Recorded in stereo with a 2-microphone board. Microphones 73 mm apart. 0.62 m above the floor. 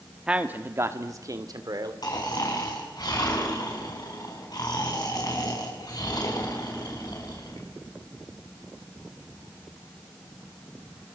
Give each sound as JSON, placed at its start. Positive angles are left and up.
{"t": 0.3, "sound": "a man speaking", "side_deg": -10, "distance_m": 1.4}
{"t": 2.0, "sound": "snoring", "side_deg": 65, "distance_m": 6.5}